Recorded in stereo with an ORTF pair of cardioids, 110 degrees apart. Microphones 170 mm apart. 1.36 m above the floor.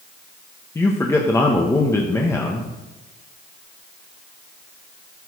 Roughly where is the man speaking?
Ahead.